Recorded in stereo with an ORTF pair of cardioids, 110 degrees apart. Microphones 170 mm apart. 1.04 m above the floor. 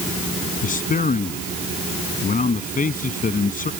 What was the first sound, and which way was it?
A man speaking, 50° left.